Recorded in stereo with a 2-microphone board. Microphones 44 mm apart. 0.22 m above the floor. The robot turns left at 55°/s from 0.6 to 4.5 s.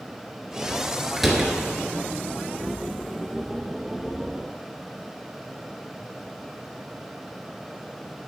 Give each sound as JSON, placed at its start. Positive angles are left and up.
{"t": 1.2, "sound": "a door slam", "side_deg": 0, "distance_m": 2.5}